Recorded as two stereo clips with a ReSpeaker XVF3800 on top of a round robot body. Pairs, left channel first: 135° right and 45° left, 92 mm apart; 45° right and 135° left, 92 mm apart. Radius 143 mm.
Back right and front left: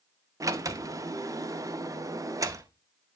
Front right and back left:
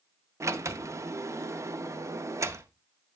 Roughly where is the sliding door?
Left.